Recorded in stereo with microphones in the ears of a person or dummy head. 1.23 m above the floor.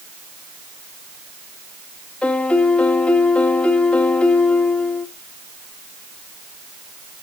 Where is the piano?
5° left (ahead or behind), 0.9 m.